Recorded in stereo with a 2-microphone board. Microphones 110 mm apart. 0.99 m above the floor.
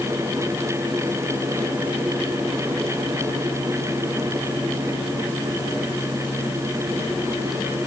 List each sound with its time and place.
Only background noise.